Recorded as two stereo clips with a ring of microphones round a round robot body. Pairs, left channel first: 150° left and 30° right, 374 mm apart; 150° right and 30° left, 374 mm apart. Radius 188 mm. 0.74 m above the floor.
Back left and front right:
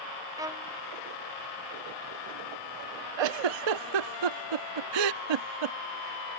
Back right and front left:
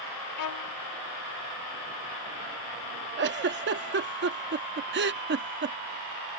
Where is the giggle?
30° right.